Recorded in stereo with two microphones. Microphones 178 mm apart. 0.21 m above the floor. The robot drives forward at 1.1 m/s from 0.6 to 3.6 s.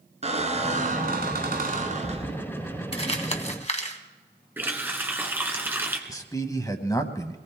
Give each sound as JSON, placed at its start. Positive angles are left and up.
{"t": 0.2, "sound": "a squeak", "side_deg": -40, "distance_m": 1.2}
{"t": 2.9, "sound": "crumpling", "side_deg": 35, "distance_m": 1.3}
{"t": 4.6, "sound": "a running tap", "side_deg": -10, "distance_m": 1.5}
{"t": 6.1, "sound": "a man speaking", "side_deg": 20, "distance_m": 1.0}